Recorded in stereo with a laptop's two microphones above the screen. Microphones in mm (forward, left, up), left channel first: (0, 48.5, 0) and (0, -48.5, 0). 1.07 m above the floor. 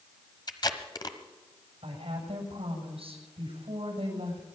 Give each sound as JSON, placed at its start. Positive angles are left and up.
{"t": 0.5, "sound": "tape being pulled", "side_deg": 50, "distance_m": 1.2}
{"t": 1.8, "sound": "a woman speaking", "side_deg": -85, "distance_m": 7.0}